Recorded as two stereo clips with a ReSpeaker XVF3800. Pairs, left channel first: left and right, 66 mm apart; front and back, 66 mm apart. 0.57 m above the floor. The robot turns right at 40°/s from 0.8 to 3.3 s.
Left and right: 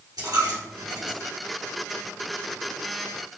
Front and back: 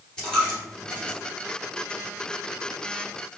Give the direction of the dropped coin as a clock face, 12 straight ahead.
3 o'clock.